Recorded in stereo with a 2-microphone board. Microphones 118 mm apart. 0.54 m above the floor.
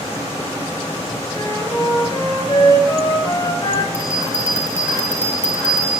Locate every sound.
1.3 s a flute: 35° left (ahead or behind), 3.5 m
3.9 s a bell: 20° left (ahead or behind), 3.5 m